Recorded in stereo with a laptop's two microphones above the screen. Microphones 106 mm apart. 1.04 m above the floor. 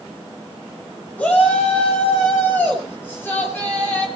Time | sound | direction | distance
1.2 | a shout | 15° left (ahead or behind) | 6 m